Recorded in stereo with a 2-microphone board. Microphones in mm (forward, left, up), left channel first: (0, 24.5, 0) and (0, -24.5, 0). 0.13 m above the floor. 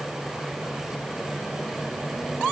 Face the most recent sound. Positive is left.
No sound to turn to.